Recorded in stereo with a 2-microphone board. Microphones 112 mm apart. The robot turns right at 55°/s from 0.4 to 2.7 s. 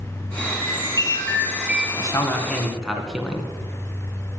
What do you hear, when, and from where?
0.4 s a chime: 115° left, 3.5 m; by 1.9 s 165° right, 3.5 m
2.0 s a man speaking: 140° left, 2 m; by 3.5 s straight behind, 2 m